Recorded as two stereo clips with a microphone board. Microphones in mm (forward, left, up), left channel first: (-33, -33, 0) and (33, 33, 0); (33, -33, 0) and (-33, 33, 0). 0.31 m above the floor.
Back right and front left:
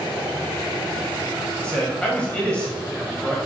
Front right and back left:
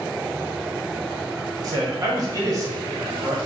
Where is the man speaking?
155° left, 1.3 m.